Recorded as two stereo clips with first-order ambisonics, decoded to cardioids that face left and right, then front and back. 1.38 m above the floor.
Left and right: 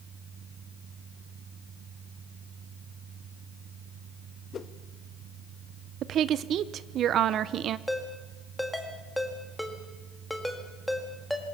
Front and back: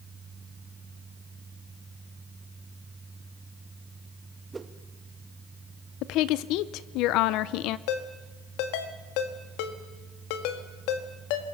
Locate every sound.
4.5 s a whoosh: 110° left, 0.7 m
6.0 s a woman speaking: 35° right, 0.7 m
7.9 s a ringtone: 5° left, 1.8 m